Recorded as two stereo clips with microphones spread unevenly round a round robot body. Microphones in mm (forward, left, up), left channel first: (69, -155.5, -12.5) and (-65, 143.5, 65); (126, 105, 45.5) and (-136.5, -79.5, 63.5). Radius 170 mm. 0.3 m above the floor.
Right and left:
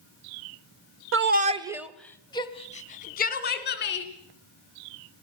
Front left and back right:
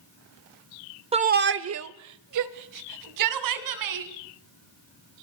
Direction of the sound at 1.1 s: 155° left.